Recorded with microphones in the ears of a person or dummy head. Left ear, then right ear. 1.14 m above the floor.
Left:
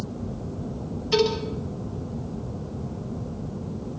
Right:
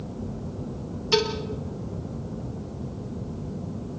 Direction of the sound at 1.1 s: 20° right (ahead or behind).